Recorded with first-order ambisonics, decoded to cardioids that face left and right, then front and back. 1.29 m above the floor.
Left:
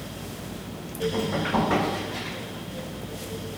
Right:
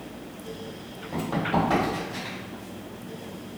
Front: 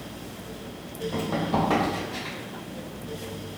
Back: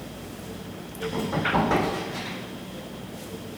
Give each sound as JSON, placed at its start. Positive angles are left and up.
{"t": 1.1, "sound": "running footsteps", "azimuth_deg": -40, "distance_m": 1.6}